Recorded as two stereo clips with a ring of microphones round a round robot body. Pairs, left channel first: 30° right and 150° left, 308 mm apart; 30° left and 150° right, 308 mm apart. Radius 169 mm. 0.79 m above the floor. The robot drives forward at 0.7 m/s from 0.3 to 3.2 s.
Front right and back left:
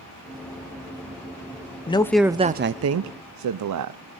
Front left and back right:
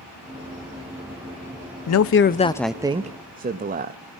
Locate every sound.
1.9 s a man speaking: 35° left, 0.7 m; by 4.0 s 150° left, 0.8 m